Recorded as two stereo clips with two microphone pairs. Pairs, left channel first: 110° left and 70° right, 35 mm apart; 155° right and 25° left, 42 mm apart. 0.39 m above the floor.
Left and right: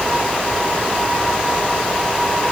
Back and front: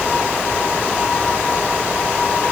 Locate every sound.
Only background noise.